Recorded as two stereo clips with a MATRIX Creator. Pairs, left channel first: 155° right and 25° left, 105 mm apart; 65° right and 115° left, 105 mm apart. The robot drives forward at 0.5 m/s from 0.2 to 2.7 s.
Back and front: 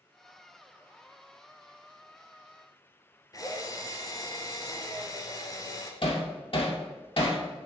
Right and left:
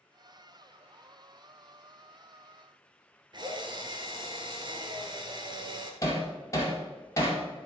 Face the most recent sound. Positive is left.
turn(degrees=-125)